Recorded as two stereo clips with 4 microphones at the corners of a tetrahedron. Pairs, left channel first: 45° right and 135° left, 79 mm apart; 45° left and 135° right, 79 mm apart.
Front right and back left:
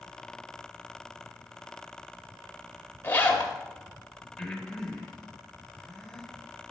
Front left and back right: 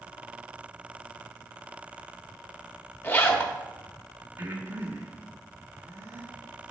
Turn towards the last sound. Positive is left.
turn(degrees=-120)